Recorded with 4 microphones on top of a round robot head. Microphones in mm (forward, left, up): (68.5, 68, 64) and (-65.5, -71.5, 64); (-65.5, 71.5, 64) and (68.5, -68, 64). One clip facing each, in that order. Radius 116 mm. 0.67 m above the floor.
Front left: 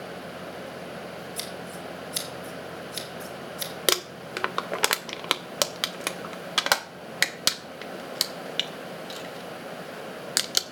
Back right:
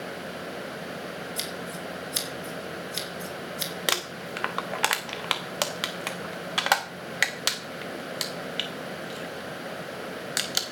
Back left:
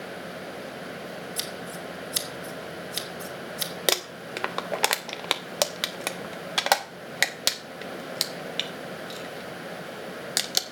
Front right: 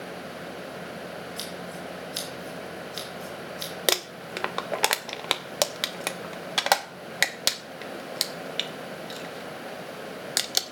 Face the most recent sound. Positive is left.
turn(degrees=45)